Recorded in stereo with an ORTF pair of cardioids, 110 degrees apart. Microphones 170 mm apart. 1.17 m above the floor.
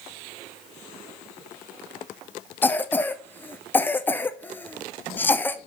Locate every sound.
2.6 s a cough: 10° left, 0.9 m